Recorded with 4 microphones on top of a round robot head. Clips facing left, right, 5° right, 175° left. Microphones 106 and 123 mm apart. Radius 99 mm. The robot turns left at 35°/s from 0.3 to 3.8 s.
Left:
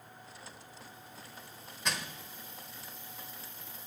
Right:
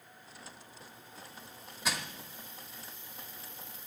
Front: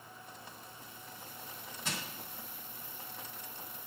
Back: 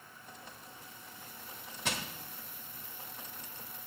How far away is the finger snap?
I don't hear a finger snap.